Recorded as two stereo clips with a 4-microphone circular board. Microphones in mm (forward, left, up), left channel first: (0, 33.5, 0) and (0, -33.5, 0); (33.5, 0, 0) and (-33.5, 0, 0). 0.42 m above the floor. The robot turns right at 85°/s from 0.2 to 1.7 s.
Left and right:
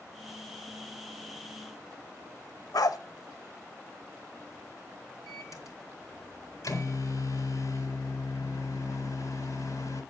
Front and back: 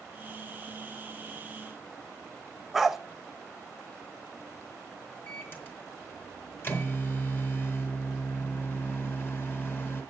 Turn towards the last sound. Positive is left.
turn(degrees=60)